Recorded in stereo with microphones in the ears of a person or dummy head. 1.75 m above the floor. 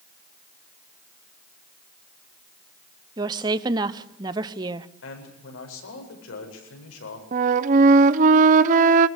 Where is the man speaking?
85° left, 8 m.